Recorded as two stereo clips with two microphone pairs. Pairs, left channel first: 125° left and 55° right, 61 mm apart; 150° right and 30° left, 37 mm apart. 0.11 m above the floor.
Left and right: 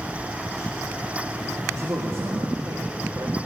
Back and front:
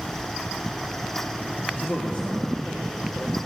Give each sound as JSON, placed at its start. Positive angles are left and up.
{"t": 1.7, "sound": "a man speaking", "azimuth_deg": -110, "distance_m": 3.5}